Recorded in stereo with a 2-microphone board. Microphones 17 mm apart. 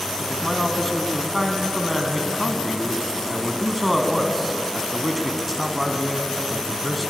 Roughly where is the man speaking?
Centre.